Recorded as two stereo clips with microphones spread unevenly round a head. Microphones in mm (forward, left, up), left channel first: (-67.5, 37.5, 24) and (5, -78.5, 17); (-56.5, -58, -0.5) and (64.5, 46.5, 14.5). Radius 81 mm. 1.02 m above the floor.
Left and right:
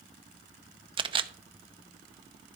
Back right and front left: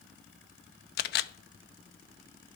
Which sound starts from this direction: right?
A camera shutter, at 1.0 s.